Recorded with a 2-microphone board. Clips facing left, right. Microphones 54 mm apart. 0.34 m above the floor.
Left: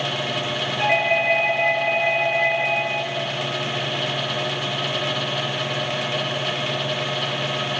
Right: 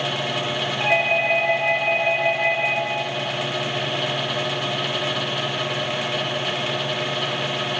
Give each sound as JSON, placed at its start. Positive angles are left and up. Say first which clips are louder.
{"t": 0.8, "sound": "a doorbell", "louder": "left 1 dB", "side_deg": 60, "distance_m": 8.0}